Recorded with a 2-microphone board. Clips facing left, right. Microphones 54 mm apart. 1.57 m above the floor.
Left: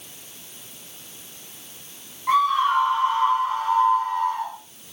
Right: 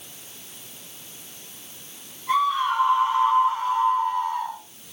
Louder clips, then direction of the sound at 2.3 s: Left 3 dB; 55° left (ahead or behind).